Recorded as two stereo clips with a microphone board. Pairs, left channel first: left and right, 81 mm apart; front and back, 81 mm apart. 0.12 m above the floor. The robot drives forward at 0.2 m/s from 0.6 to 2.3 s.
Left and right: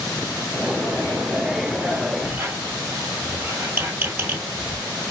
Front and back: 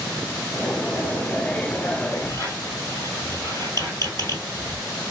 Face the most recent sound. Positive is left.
turn(degrees=-150)